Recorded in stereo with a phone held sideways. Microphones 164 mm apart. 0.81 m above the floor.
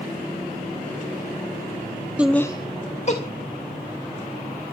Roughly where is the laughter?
Centre.